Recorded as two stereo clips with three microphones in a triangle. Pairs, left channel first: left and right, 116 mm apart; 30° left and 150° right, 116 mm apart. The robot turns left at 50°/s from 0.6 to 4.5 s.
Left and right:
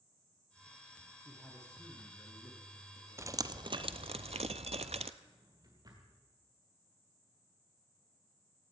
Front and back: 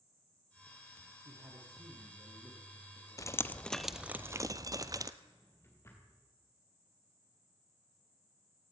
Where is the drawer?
35° right, 3.5 m.